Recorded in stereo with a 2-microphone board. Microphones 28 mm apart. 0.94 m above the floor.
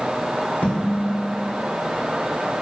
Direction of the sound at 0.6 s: 70° left (ahead or behind).